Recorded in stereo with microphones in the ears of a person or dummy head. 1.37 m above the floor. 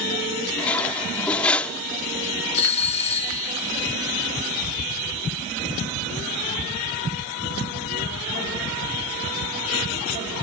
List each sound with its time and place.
0.6 s cutlery clinking: 10° left (ahead or behind)
2.5 s a doorbell: 35° left (ahead or behind)